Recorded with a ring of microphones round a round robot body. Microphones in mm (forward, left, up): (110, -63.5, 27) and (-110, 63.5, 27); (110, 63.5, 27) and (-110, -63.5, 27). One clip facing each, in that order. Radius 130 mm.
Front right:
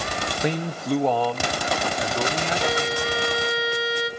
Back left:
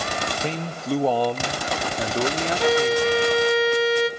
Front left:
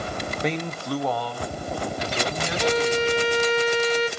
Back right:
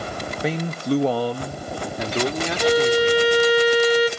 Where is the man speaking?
65° right, 0.7 m; by 3.2 s 165° right, 1.8 m.